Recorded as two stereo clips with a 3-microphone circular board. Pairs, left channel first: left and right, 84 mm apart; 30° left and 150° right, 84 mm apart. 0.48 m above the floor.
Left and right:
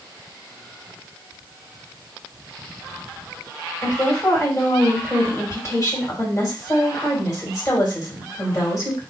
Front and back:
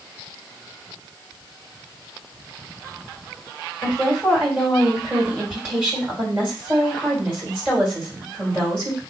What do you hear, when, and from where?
3.8 s a woman speaking: 145° left, 2.5 m